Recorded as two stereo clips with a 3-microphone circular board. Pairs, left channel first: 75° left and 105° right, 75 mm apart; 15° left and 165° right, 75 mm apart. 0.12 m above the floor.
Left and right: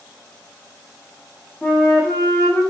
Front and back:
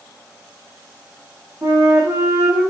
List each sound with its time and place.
1.6 s a flute: 150° left, 2.5 m